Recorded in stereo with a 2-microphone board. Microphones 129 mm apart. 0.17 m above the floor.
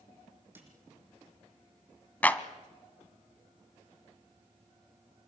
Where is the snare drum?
15° right (ahead or behind), 7.5 m.